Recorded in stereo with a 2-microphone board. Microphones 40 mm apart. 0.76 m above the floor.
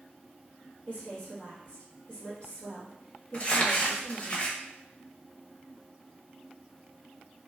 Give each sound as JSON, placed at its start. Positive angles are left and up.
{"t": 0.9, "sound": "a woman speaking", "side_deg": 35, "distance_m": 1.1}
{"t": 3.3, "sound": "crumpling", "side_deg": 35, "distance_m": 0.5}